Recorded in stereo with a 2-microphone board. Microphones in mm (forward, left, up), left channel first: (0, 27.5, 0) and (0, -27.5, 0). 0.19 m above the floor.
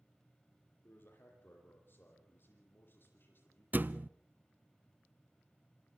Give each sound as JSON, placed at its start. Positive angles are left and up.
{"t": 0.8, "sound": "a man speaking", "side_deg": 40, "distance_m": 6.5}
{"t": 3.7, "sound": "a thud", "side_deg": -35, "distance_m": 0.6}